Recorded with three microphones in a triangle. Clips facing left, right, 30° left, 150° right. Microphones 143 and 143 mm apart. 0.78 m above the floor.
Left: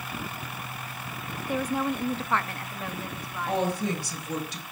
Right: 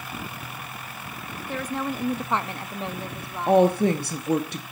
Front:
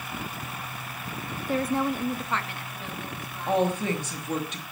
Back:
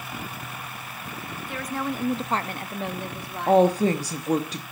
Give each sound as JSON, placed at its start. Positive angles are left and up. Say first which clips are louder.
{"t": 1.5, "sound": "a woman speaking", "louder": "left 2 dB, front 5 dB", "azimuth_deg": 25, "distance_m": 0.7}
{"t": 3.5, "sound": "a woman speaking", "louder": "right 10 dB, back 7 dB", "azimuth_deg": -100, "distance_m": 1.1}